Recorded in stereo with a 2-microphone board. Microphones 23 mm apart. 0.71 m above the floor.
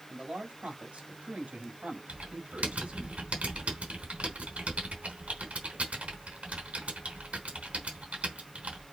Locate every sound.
0.1 s a man speaking: 70° right (ahead or behind), 5.5 m; by 3.1 s 75° right (ahead or behind), 4.5 m
2.1 s typing on a keyboard: 75° right (ahead or behind), 3.5 m